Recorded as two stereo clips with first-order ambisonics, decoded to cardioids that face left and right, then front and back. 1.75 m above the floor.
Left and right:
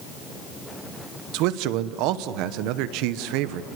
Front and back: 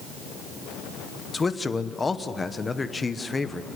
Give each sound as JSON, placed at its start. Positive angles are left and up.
{"t": 1.3, "sound": "a man speaking", "azimuth_deg": -75, "distance_m": 1.0}